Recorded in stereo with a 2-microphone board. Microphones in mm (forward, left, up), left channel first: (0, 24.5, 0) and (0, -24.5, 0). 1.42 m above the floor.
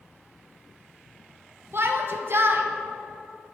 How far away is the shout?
About 0.7 m.